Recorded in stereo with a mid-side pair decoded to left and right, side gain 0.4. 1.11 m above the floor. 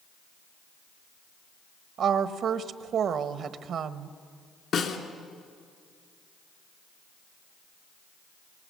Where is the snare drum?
60° left, 3 m.